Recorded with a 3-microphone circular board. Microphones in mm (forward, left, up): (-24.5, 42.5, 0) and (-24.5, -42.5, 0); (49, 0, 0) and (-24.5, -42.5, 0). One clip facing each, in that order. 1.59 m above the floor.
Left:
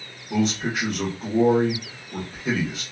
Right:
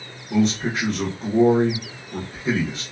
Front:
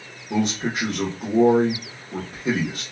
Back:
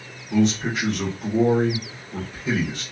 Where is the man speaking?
Straight ahead, 1.2 m.